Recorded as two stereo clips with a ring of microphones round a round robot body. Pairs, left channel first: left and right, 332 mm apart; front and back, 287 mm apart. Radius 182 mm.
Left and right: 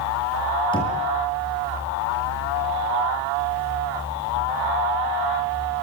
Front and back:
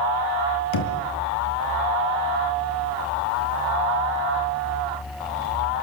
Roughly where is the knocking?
Ahead.